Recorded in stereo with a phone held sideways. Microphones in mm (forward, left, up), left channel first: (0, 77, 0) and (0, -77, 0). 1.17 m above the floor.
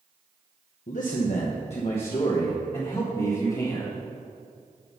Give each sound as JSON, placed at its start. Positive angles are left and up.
{"t": 0.9, "sound": "a man speaking", "side_deg": 65, "distance_m": 1.0}